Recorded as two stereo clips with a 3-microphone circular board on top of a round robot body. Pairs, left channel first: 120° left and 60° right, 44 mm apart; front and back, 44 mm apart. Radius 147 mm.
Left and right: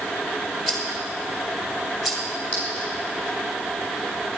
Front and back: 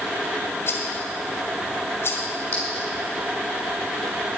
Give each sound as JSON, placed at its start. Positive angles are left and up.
{"t": 0.7, "sound": "a rattle", "azimuth_deg": 35, "distance_m": 1.8}
{"t": 2.5, "sound": "a clink", "azimuth_deg": 60, "distance_m": 6.0}